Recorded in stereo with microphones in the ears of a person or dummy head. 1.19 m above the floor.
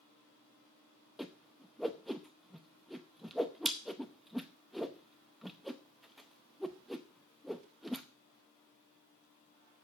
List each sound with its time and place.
1.2 s a whoosh: centre (ahead or behind), 0.7 m